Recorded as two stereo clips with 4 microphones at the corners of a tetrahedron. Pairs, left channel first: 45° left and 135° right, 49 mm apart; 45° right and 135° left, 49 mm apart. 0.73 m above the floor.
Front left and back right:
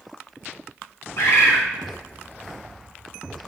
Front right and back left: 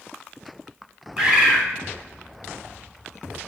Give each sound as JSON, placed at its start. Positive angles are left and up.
{"t": 1.2, "sound": "a bird", "azimuth_deg": 65, "distance_m": 3.0}